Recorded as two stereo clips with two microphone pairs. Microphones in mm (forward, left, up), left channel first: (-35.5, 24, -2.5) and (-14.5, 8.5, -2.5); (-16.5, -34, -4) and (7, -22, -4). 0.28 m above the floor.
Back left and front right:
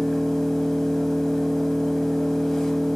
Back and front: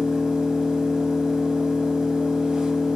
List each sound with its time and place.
0.0 s an engine running: 75° left, 0.9 m